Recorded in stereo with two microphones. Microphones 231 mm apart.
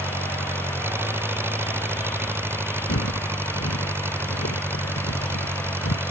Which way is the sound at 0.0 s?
10° right (ahead or behind).